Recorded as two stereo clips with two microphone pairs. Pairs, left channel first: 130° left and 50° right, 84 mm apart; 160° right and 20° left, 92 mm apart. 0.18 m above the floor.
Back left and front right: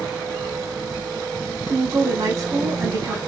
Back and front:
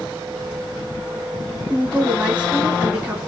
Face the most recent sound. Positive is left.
turn(degrees=-50)